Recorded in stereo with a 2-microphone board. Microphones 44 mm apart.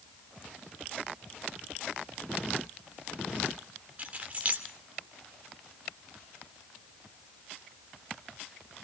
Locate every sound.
4.0 s keys jangling: 35° right (ahead or behind), 2 m